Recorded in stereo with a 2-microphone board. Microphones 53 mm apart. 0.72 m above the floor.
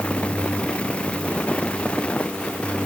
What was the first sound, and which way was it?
Only background noise.